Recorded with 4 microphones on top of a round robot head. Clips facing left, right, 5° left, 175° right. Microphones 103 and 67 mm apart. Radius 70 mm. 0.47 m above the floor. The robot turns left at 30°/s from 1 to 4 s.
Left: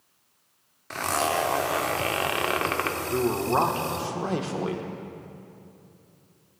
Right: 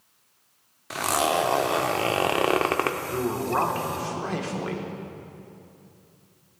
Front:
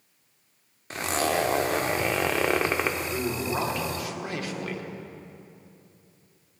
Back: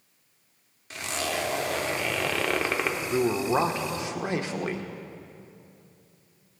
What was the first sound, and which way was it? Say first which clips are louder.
A zipper: right 2 dB, front 5 dB; 15° right.